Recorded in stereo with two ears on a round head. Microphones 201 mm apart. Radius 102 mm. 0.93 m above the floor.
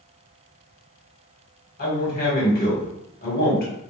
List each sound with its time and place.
1.8 s a man speaking: 45° left (ahead or behind), 1.2 m